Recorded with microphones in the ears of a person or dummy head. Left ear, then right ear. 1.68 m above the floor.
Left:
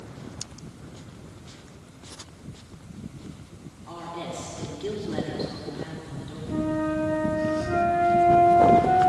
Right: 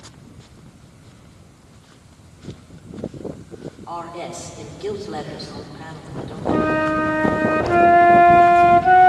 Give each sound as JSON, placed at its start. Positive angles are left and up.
{"t": 3.9, "sound": "a woman speaking", "side_deg": -20, "distance_m": 5.5}
{"t": 6.5, "sound": "a flute", "side_deg": -45, "distance_m": 0.6}